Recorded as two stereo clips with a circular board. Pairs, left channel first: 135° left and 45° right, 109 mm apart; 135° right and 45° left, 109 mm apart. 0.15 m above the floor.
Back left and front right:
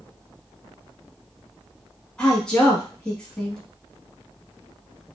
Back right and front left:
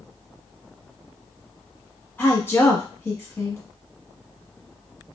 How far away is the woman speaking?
About 1.0 m.